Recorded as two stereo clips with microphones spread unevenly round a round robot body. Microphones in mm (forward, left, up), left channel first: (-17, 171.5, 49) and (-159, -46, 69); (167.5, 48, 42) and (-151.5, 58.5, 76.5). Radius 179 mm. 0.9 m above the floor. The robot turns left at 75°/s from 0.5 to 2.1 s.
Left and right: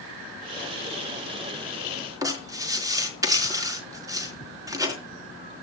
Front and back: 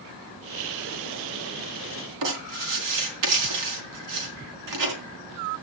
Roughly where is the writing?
Behind.